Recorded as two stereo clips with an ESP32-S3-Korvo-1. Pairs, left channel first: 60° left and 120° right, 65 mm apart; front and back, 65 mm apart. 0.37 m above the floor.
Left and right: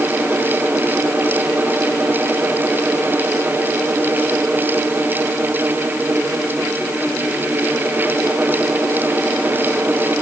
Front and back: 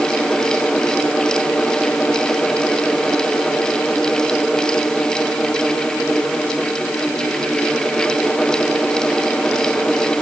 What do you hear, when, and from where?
Only background noise.